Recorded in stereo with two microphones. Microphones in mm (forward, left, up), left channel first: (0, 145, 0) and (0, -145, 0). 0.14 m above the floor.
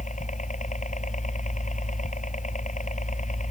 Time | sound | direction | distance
0.0 | a helicopter | 25° left (ahead or behind) | ?